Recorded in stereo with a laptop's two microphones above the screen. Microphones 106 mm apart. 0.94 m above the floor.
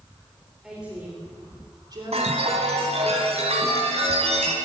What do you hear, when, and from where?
0.6 s a woman speaking: centre (ahead or behind), 3 m; by 3.0 s 65° right (ahead or behind), 3.5 m
2.1 s a chime: 85° right, 3 m